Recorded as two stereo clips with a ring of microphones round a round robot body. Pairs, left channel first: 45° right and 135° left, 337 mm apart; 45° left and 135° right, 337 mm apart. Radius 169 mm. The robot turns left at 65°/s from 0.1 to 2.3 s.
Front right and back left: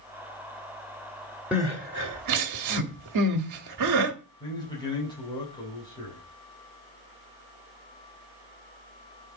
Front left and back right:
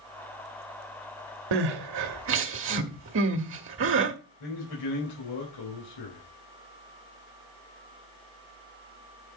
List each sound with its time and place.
1.5 s crying: 140° right, 1.2 m; by 4.1 s 170° left, 1.2 m
4.4 s a man speaking: 30° left, 4 m